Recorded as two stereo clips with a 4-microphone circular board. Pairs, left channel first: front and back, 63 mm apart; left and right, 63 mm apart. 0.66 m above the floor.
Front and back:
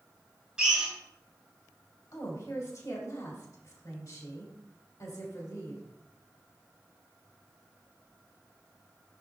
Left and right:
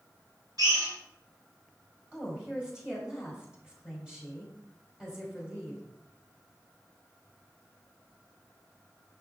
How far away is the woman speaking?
About 2.5 m.